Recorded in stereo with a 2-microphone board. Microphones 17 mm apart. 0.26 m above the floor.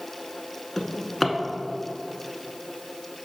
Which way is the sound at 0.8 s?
15° left (ahead or behind).